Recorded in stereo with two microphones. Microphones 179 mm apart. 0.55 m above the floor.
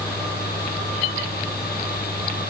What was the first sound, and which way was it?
Only background noise.